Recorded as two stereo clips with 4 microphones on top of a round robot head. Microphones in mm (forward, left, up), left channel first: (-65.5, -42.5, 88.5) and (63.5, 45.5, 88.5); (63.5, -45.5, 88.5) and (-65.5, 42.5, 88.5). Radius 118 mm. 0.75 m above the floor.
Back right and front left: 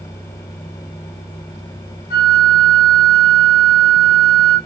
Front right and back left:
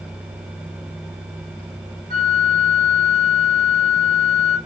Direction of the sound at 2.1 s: Straight behind.